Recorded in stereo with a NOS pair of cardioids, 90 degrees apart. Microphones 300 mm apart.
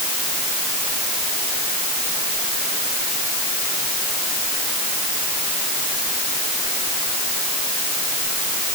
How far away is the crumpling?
I don't hear crumpling.